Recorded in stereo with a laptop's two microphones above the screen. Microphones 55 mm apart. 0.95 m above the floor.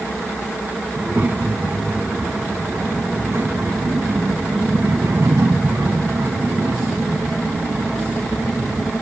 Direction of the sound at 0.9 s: 35° right (ahead or behind).